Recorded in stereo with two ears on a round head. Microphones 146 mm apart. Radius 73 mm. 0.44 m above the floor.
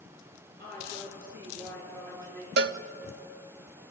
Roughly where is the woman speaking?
Right.